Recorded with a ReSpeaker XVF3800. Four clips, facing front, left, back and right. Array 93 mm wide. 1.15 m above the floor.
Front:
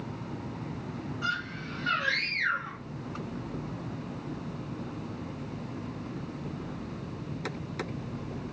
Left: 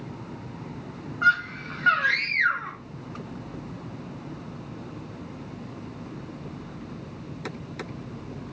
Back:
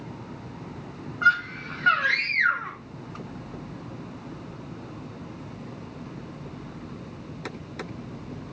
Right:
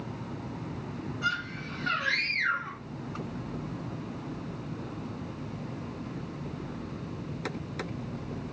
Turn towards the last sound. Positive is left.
turn(degrees=135)